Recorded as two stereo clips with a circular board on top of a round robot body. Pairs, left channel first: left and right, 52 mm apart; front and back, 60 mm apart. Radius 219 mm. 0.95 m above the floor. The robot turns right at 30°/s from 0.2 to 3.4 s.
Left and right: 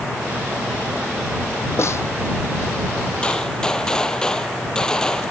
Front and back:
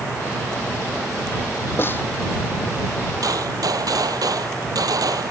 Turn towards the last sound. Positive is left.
turn(degrees=165)